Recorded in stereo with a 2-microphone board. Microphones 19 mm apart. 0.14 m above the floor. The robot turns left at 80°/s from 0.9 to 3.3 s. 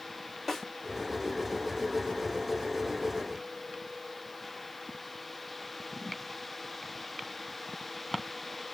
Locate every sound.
0.5 s a snare drum: 5° left (ahead or behind), 2 m